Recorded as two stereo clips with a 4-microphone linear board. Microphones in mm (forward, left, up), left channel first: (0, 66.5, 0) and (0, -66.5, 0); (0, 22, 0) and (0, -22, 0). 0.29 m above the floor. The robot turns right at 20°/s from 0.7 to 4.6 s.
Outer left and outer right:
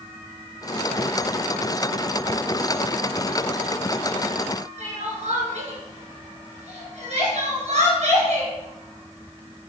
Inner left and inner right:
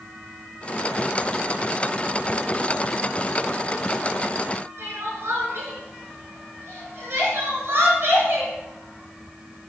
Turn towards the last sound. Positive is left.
turn(degrees=-55)  # may be behind; listen again after turning